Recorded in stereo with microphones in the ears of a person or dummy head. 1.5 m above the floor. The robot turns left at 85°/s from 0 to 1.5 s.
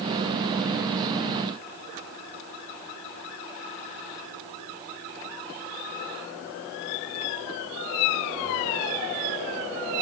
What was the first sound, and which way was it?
Only background noise.